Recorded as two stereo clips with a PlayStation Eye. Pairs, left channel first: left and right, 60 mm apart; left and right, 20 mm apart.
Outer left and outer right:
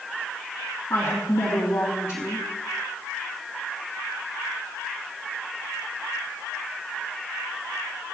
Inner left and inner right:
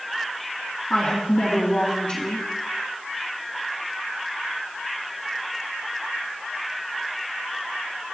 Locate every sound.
0.9 s a woman speaking: 50° left (ahead or behind), 2.5 m